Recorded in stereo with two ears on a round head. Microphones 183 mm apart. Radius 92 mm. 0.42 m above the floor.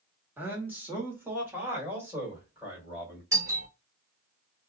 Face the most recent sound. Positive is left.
turn(degrees=-15)  # may be behind; listen again after turning